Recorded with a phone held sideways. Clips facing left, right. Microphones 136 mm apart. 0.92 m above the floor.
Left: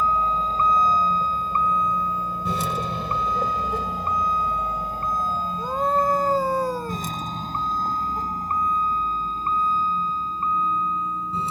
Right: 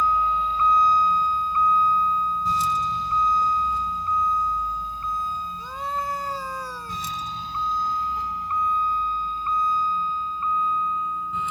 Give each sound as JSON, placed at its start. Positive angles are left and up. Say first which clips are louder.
{"t": 0.0, "sound": "a vehicle", "louder": "even", "side_deg": 40}
{"t": 5.6, "sound": "a scream", "louder": "left 10 dB", "side_deg": 55}